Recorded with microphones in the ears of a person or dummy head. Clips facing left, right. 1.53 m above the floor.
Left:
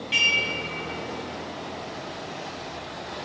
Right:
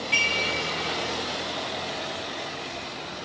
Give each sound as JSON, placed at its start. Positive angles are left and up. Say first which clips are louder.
{"t": 0.1, "sound": "dishes clattering", "louder": "right 2 dB", "side_deg": 5, "distance_m": 1.1}